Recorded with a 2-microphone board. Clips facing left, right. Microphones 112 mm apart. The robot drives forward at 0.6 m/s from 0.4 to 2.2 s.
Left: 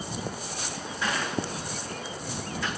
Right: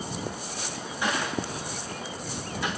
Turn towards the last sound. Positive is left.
turn(degrees=-15)  # may be behind; listen again after turning